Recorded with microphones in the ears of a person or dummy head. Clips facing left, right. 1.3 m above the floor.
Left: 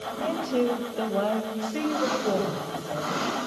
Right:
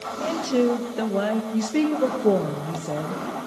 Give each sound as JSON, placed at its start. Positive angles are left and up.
{"t": 0.2, "sound": "a woman speaking", "side_deg": -25, "distance_m": 1.0}
{"t": 1.5, "sound": "a woman speaking", "side_deg": -60, "distance_m": 1.2}